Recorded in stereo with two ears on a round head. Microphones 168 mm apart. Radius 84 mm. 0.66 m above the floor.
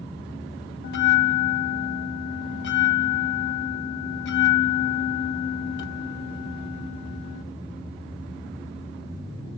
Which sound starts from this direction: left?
A bell, at 0.8 s.